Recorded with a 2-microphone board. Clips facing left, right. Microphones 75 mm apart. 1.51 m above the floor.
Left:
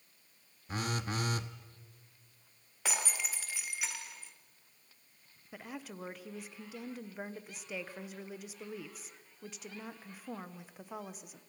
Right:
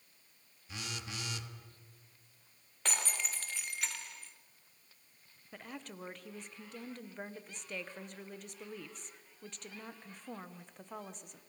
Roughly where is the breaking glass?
Centre.